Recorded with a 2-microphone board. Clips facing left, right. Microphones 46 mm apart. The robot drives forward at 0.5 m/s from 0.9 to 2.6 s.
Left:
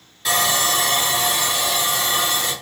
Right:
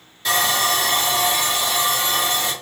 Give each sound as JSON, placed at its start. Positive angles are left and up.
{"t": 0.2, "sound": "sawing", "side_deg": 0, "distance_m": 1.4}